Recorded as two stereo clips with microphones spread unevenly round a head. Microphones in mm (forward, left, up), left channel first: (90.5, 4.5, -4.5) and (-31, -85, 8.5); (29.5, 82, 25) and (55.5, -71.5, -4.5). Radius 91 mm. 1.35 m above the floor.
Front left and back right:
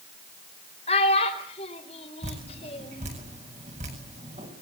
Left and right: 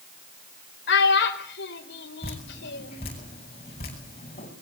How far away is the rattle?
No rattle in this recording.